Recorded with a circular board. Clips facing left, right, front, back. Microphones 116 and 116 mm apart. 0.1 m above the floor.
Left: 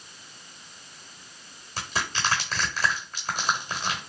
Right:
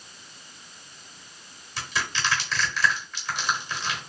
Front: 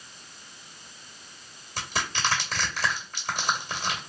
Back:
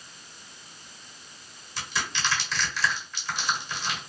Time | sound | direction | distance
1.8 | crushing | 40° left | 1.3 m